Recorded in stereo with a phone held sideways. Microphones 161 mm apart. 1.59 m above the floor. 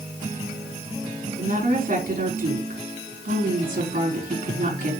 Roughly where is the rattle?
I don't hear a rattle.